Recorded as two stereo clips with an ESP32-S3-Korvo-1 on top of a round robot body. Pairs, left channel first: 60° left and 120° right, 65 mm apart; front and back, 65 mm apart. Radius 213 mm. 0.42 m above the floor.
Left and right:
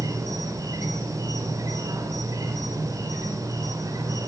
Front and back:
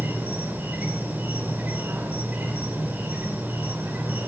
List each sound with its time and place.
0.0 s an insect: 120° right, 3.5 m